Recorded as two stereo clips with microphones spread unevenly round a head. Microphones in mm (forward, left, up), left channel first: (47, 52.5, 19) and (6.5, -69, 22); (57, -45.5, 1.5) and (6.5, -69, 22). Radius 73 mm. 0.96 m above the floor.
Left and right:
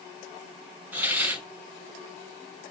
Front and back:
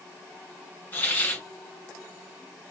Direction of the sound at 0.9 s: 30° right.